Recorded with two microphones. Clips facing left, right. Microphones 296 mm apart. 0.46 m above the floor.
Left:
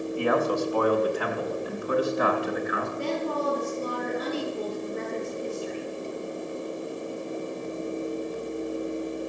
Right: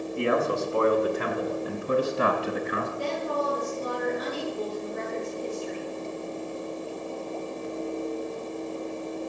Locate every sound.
0.2 s a man speaking: 20° right (ahead or behind), 4 m; by 2.9 s 35° right (ahead or behind), 6 m
3.0 s a woman speaking: 25° left (ahead or behind), 6.5 m